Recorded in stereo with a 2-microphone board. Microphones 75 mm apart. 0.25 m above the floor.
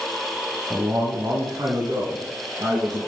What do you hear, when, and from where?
0.7 s a man speaking: 35° right (ahead or behind), 1.3 m; by 3.0 s 65° right (ahead or behind), 3.5 m